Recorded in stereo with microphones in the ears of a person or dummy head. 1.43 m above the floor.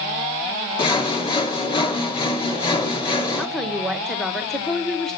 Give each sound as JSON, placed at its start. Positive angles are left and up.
{"t": 0.8, "sound": "sawing", "side_deg": 30, "distance_m": 2.0}
{"t": 3.4, "sound": "a woman speaking", "side_deg": 0, "distance_m": 1.2}